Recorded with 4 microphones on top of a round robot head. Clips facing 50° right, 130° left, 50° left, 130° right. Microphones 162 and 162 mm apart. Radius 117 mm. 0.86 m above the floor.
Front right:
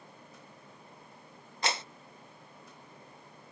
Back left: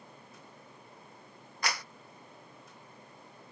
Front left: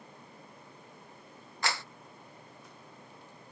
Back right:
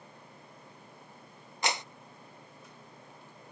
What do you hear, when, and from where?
1.6 s a clap: 80° right